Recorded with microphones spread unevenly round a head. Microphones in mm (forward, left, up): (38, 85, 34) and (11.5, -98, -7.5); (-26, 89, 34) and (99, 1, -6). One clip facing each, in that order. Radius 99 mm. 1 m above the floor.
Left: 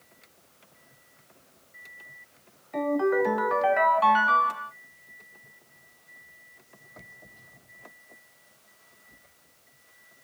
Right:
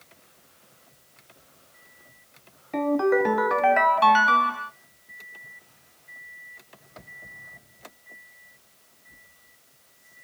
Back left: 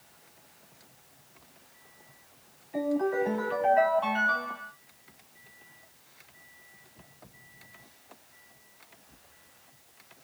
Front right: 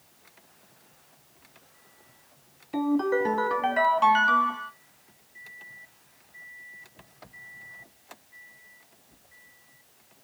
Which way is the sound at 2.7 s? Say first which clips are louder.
Right 3 dB, front right 3 dB; 65° right.